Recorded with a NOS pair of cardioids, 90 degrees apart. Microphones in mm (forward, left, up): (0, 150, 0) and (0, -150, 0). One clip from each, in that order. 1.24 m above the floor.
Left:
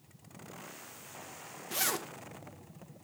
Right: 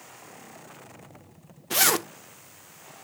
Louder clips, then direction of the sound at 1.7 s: Right 11 dB; 45° right.